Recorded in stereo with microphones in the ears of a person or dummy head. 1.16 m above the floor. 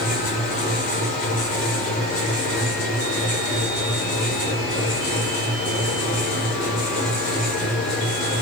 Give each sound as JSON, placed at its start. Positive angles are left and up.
{"t": 0.0, "sound": "a fan", "side_deg": 45, "distance_m": 0.9}